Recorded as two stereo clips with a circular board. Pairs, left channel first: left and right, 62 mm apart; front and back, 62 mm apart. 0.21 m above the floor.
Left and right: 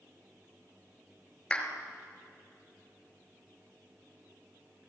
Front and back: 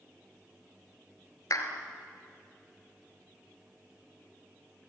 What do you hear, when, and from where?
1.5 s a clap: 15° left, 3 m